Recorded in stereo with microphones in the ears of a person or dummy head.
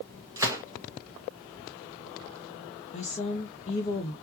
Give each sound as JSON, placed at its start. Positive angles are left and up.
{"t": 0.4, "sound": "a gunshot", "side_deg": -15, "distance_m": 0.7}
{"t": 2.9, "sound": "a woman speaking", "side_deg": 35, "distance_m": 0.6}